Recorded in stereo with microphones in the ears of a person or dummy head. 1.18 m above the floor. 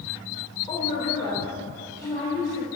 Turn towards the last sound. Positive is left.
turn(degrees=20)  # may be behind; listen again after turning